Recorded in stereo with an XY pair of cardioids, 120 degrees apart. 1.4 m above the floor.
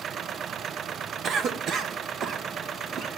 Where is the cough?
55° right, 0.9 m.